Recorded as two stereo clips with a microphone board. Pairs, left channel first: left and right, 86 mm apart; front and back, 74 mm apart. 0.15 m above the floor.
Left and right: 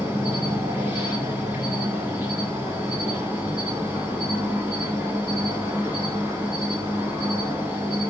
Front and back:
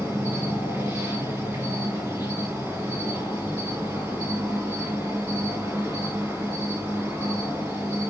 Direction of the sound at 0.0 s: 140° right.